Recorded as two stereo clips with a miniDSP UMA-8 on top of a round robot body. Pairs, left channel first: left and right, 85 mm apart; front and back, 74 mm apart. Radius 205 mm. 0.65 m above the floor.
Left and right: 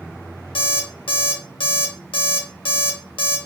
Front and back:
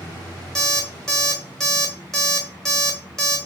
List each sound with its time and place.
0.6 s an alarm clock: 85° left, 0.7 m